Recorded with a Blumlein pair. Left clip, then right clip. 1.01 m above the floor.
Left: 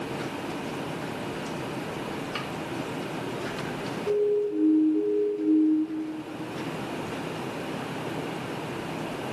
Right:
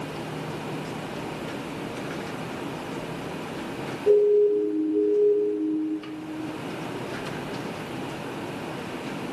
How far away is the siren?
About 5 m.